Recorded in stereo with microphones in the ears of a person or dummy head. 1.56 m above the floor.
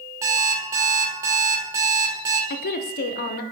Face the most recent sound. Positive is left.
turn(degrees=45)  # may be behind; listen again after turning